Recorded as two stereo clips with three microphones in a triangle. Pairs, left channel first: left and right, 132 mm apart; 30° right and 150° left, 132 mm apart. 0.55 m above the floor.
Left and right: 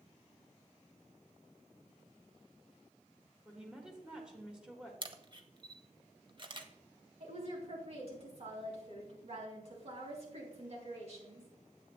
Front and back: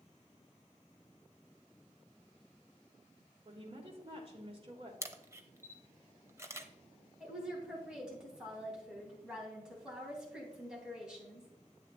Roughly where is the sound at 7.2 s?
Behind right.